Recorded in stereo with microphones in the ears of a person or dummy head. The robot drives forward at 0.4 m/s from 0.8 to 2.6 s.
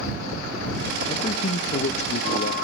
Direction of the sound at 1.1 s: 35° left (ahead or behind).